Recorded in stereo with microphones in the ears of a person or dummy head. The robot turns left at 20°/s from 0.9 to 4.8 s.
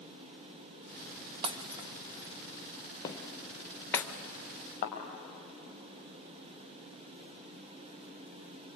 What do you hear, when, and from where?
1.4 s breaking glass: 35° right (ahead or behind), 0.7 m; by 4.0 s 5° left (ahead or behind), 0.7 m
3.0 s footsteps: 10° left (ahead or behind), 2 m; by 4.1 s 25° left (ahead or behind), 2.5 m
4.8 s a thud: 40° left (ahead or behind), 4.5 m